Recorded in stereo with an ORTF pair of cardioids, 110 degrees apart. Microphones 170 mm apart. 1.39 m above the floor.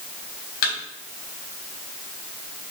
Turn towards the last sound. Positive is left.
turn(degrees=65)